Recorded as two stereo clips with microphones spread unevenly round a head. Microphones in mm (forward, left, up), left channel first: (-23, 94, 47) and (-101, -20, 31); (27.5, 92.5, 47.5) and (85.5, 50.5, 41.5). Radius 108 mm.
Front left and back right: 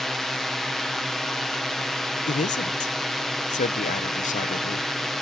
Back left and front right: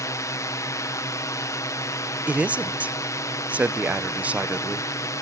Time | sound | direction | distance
0.0 | a drone | 150° left | ?
2.3 | a man speaking | 30° left | ?